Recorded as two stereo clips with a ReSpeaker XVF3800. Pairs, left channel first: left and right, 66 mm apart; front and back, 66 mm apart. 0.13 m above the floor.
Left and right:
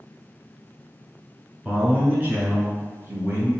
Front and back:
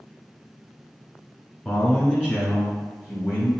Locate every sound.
1.6 s a man speaking: 85° right, 1.3 m; by 3.5 s 125° right, 2.0 m